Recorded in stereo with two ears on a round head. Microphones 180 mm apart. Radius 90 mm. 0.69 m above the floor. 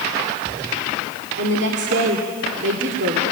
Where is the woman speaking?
60° right (ahead or behind), 2 m.